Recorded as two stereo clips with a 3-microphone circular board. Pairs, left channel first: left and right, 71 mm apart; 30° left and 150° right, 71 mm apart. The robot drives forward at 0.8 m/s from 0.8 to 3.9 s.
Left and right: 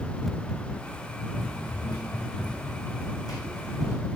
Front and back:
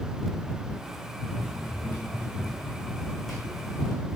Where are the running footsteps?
80° left, 4 m; by 4.0 s 130° left, 2.5 m.